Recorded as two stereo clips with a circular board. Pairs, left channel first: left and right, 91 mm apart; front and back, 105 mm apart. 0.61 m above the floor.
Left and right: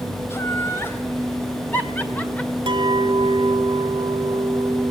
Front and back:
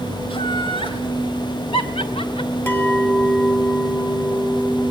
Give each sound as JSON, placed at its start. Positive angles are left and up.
{"t": 0.3, "sound": "laughter", "azimuth_deg": 30, "distance_m": 3.5}
{"t": 2.7, "sound": "a clink", "azimuth_deg": -65, "distance_m": 1.7}